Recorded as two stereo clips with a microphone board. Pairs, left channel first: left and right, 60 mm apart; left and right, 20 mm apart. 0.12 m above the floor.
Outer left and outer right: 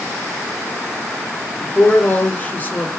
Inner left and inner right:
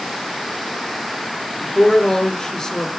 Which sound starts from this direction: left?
A woman speaking, at 1.6 s.